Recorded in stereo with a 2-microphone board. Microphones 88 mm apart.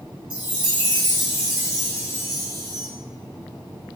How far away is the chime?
About 2 m.